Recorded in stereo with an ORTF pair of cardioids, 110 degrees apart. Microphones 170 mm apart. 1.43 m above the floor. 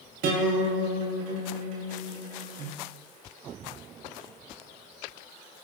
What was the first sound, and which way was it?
A guitar, 70° right.